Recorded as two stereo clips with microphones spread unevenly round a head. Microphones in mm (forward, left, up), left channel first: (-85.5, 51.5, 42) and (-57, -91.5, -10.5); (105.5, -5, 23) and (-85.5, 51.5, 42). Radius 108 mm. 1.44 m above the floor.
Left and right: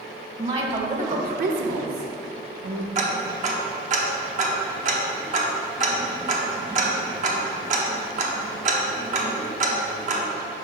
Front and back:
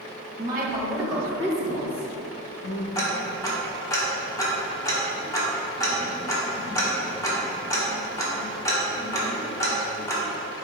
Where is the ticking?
90° right, 1.0 m.